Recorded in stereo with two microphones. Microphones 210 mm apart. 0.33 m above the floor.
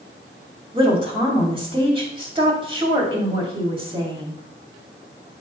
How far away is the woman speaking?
About 2 m.